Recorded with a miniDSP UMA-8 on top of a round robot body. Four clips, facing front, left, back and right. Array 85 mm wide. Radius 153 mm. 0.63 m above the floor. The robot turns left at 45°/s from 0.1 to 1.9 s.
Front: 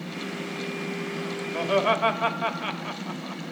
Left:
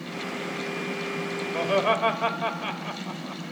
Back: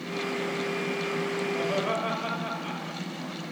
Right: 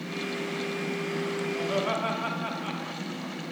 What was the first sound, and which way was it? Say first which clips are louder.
Laughter: left 8 dB, front 8 dB; 40° left.